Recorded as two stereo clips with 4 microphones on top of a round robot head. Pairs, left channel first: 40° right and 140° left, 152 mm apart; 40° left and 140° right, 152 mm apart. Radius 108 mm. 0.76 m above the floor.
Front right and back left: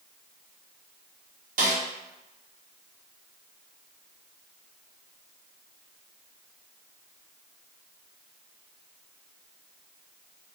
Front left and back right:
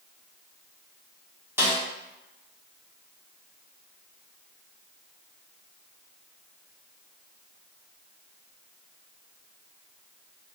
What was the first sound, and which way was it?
A snare drum, 145° left.